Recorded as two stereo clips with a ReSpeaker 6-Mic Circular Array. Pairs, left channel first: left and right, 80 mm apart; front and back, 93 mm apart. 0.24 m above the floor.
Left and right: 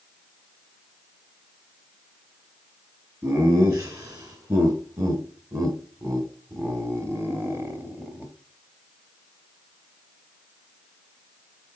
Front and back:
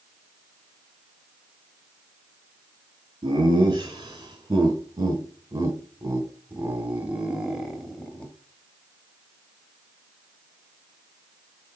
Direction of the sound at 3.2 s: 140° right.